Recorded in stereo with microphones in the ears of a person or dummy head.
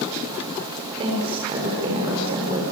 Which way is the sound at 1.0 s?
30° right (ahead or behind).